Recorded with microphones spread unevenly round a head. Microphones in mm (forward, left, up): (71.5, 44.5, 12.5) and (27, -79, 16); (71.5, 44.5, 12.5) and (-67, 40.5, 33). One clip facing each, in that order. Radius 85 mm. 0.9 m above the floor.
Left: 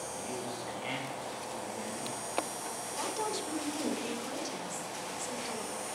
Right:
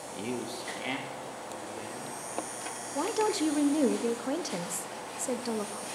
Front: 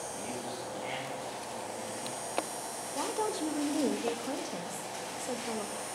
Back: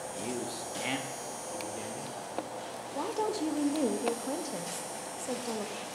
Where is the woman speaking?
95° right, 0.8 m.